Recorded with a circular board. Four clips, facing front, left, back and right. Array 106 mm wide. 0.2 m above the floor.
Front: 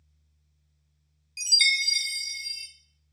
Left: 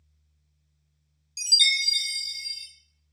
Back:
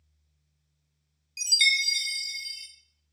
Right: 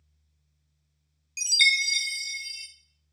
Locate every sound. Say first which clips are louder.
1.4 s a chime: right 4 dB, even; 85° right, 0.7 m